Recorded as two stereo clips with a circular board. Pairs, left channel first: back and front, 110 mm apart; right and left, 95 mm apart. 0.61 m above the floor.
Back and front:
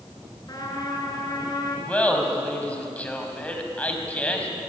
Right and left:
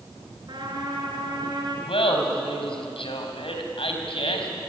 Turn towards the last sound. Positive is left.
turn(degrees=-105)